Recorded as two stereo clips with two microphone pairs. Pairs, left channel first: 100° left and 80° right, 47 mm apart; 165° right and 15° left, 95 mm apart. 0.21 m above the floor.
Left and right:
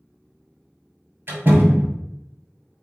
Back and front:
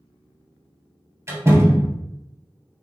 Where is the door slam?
40° right, 2 m.